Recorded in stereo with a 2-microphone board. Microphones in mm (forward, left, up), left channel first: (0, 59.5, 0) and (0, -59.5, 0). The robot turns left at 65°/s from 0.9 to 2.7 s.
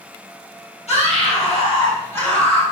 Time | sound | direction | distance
0.9 | a scream | 105° left | 4 m